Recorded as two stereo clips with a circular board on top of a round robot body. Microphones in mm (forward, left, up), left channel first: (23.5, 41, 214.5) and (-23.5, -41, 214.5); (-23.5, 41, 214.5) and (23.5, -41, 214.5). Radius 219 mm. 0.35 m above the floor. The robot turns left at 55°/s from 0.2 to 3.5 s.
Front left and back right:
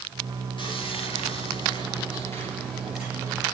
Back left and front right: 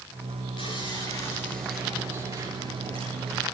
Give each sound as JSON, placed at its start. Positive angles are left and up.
{"t": 0.6, "sound": "sawing", "azimuth_deg": 95, "distance_m": 5.0}